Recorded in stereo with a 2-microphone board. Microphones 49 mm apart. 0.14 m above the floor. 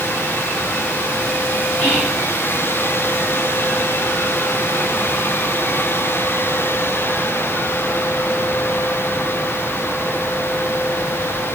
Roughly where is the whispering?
Left.